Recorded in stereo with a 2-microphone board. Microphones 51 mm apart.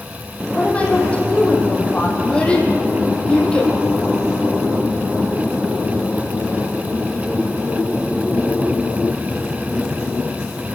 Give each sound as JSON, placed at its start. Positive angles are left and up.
{"t": 0.5, "sound": "a woman speaking", "side_deg": 20, "distance_m": 5.5}
{"t": 2.2, "sound": "a child speaking", "side_deg": 20, "distance_m": 4.0}